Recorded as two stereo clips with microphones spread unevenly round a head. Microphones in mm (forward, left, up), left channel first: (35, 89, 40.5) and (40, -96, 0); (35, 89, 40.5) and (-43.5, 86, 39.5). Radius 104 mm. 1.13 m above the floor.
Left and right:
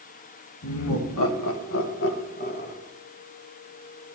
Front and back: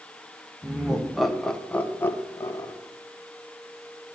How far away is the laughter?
About 1.4 m.